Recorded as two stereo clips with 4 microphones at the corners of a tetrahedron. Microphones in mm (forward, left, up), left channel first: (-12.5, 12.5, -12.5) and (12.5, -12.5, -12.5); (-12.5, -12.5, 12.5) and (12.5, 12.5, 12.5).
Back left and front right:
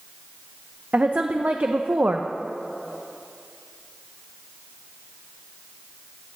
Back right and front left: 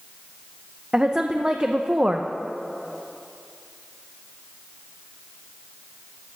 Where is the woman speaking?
10° right, 0.8 m.